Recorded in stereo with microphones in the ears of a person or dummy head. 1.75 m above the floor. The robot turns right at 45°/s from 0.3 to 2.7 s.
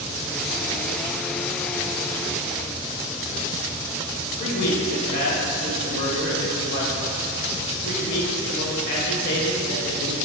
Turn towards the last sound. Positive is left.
turn(degrees=50)  # may be behind; listen again after turning